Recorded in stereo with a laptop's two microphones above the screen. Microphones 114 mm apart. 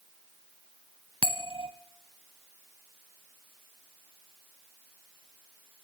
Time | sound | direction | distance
1.2 | a bell | 50° right (ahead or behind) | 1.3 m